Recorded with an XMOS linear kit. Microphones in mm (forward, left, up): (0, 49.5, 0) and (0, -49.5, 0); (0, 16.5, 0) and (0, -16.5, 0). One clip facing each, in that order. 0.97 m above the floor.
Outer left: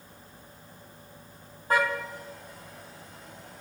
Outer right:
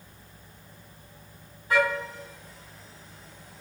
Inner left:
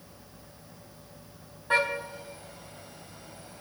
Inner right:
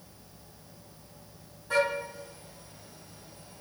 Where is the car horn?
45° left (ahead or behind), 3 m; by 3.6 s 65° left (ahead or behind), 2.5 m.